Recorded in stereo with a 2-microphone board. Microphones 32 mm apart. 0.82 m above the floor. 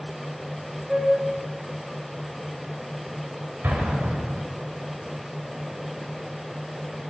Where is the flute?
15° right (ahead or behind), 3 m.